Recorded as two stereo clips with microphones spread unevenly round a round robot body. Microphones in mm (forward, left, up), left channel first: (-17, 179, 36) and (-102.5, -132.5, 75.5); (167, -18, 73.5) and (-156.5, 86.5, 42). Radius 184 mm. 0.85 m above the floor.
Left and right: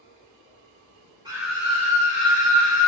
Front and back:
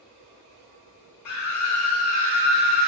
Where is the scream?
25° right, 0.9 m; by 2.9 s 50° left, 1.5 m.